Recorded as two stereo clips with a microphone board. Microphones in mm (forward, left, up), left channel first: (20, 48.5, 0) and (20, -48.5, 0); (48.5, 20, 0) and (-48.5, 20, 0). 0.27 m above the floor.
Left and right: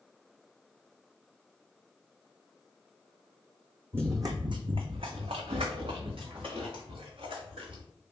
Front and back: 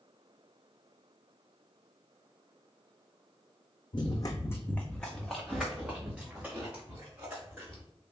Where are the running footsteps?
25° right, 0.6 m; by 7.8 s 115° right, 2 m.